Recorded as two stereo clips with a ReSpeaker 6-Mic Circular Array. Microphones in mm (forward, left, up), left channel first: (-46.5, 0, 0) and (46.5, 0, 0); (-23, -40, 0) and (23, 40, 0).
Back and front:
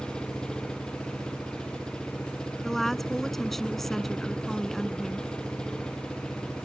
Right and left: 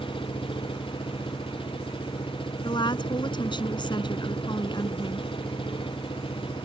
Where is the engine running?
100° right.